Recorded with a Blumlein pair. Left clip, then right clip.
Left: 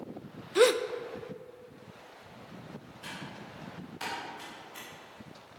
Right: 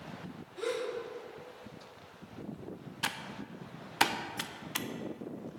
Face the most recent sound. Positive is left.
turn(degrees=-50)